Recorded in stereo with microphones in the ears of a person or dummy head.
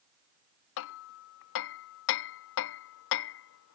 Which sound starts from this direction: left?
Hammering, at 0.8 s.